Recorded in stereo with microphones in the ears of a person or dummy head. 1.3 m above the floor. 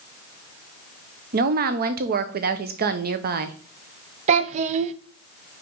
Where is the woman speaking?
50° right (ahead or behind), 0.7 m.